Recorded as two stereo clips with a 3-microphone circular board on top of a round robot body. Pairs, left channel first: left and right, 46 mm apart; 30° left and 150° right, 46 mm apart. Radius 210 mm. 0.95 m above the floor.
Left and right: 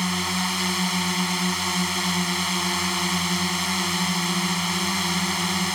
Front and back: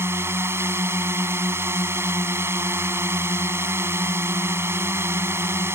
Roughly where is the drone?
Behind.